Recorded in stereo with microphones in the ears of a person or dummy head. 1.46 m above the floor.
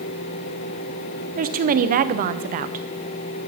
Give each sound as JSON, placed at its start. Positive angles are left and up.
{"t": 1.4, "sound": "a woman speaking", "side_deg": -35, "distance_m": 0.7}